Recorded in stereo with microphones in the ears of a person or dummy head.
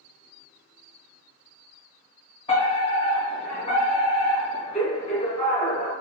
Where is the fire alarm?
30° left (ahead or behind), 1.5 m.